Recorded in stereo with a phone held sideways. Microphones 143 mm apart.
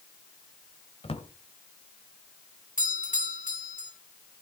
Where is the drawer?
45° left (ahead or behind), 1.7 m.